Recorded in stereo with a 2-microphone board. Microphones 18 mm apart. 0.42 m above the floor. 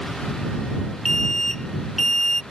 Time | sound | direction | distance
1.1 | an alarm | 20° left (ahead or behind) | ?